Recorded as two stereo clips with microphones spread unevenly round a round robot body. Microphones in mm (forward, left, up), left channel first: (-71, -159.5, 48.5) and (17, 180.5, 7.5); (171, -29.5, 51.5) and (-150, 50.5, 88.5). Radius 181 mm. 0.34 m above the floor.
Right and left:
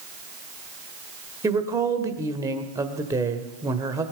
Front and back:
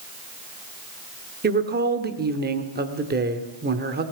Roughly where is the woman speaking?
Behind left.